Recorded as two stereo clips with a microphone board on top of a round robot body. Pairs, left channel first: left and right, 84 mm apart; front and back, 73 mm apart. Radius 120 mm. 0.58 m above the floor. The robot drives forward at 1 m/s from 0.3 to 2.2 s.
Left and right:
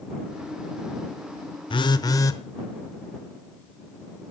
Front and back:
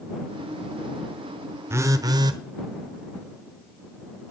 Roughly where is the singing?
I don't hear singing.